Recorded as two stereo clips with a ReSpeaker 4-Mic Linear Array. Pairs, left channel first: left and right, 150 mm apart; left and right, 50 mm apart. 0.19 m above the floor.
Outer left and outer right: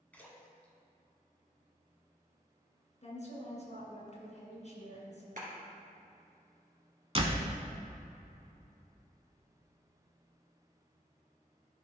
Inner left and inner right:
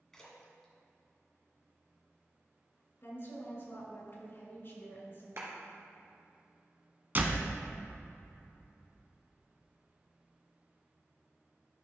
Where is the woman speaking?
45° left (ahead or behind), 2 m.